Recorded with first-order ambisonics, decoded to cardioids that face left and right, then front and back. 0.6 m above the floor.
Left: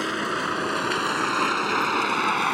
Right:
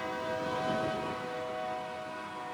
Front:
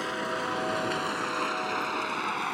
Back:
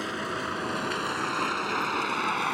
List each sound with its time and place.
0.0 s a vehicle: 95° left; by 2.5 s 105° left